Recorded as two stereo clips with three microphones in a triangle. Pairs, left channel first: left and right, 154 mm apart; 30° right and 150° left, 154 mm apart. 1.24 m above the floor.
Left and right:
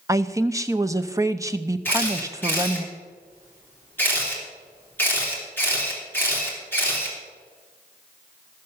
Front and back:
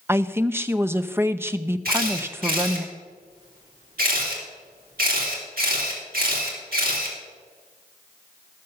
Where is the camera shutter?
165° left, 3.5 m.